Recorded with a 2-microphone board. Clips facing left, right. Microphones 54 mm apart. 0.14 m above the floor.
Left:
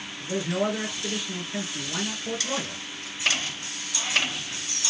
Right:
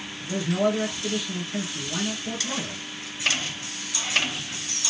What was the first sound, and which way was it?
A man speaking, 15° left (ahead or behind).